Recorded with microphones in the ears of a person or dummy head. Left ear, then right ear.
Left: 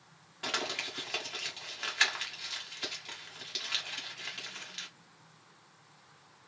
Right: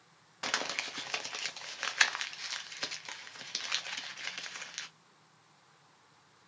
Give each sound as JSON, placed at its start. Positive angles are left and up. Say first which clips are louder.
{"t": 0.4, "sound": "crumpling", "louder": "even", "side_deg": -35, "distance_m": 0.8}